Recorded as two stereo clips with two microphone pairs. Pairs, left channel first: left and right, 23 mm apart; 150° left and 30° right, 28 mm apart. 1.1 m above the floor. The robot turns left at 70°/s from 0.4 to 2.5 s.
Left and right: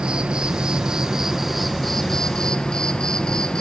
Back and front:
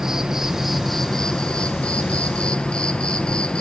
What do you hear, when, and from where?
0.0 s an insect: 95° right, 1.3 m; by 3.6 s 115° left, 1.3 m